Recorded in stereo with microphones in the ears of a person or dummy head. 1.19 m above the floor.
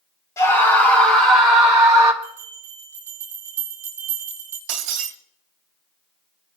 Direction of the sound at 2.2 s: 10° right (ahead or behind).